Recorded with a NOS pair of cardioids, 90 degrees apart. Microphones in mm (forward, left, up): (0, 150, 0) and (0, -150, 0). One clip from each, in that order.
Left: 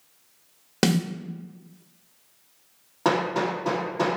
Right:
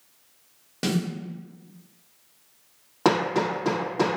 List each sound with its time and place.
0.8 s a snare drum: 60° left, 0.9 m
3.0 s hammering: 25° right, 1.7 m